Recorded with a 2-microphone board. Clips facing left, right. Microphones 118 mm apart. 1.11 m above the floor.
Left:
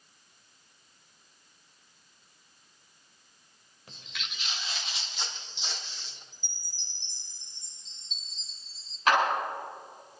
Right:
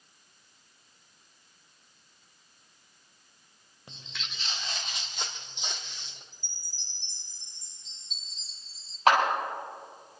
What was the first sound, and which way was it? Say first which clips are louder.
Footsteps: even; 25° right (ahead or behind).